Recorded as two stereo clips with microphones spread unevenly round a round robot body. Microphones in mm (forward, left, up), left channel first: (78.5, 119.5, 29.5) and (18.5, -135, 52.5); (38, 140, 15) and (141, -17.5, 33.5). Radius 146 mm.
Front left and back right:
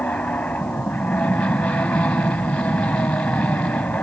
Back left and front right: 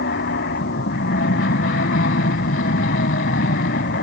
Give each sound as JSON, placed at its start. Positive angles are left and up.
{"t": 0.0, "sound": "an aircraft", "azimuth_deg": 160}